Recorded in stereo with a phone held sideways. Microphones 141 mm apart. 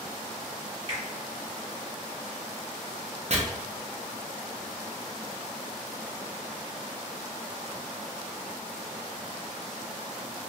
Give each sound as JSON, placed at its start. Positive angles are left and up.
{"t": 0.9, "sound": "a finger snap", "side_deg": -35, "distance_m": 1.0}
{"t": 3.3, "sound": "chopping", "side_deg": -50, "distance_m": 0.6}